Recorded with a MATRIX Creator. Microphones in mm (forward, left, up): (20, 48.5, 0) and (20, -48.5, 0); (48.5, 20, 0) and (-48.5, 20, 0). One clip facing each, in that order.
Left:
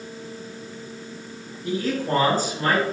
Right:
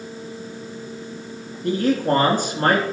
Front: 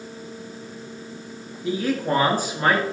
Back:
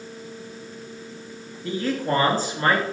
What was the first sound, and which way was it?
A man speaking, 75° right.